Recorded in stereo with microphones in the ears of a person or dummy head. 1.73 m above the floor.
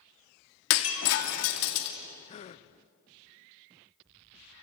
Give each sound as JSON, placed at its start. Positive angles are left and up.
{"t": 0.7, "sound": "breaking glass", "side_deg": 65, "distance_m": 2.5}
{"t": 2.3, "sound": "a gasp", "side_deg": 35, "distance_m": 0.8}